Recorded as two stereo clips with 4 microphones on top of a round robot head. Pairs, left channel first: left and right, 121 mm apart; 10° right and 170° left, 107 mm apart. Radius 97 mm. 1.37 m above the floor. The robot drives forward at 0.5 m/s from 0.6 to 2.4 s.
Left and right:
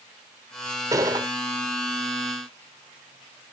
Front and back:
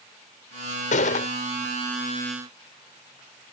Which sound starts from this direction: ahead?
A gunshot, at 0.9 s.